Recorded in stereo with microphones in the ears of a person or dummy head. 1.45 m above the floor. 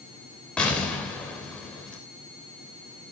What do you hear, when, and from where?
0.6 s an explosion: 5° left (ahead or behind), 3.5 m